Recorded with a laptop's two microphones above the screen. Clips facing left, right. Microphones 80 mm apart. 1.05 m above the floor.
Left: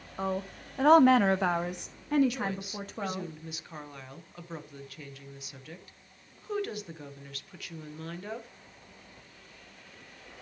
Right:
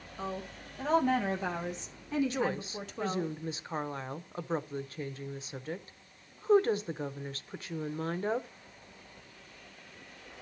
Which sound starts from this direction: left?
A woman speaking, at 0.2 s.